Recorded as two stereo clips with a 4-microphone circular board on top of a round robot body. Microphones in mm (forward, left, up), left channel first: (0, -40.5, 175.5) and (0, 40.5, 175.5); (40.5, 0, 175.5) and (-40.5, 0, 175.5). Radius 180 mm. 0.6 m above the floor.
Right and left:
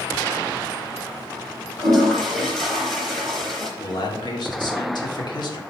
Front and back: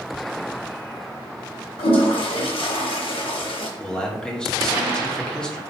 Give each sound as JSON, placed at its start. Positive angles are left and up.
{"t": 1.8, "sound": "a toilet flushing", "azimuth_deg": -5, "distance_m": 0.9}
{"t": 3.8, "sound": "a man speaking", "azimuth_deg": -80, "distance_m": 2.0}